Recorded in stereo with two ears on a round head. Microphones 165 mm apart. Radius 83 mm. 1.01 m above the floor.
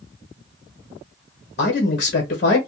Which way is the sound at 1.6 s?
45° left (ahead or behind).